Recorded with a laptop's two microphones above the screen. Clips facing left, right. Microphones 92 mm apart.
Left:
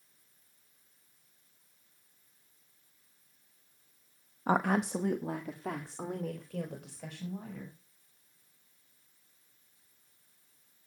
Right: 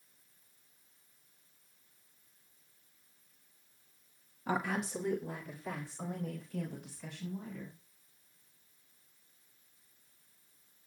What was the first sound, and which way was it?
A woman speaking, 40° left (ahead or behind).